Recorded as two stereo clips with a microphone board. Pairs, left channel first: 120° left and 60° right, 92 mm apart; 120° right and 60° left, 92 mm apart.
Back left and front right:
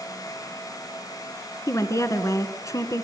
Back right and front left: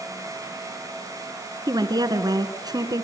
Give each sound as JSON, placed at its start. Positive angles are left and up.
{"t": 1.7, "sound": "a woman speaking", "azimuth_deg": 80, "distance_m": 1.7}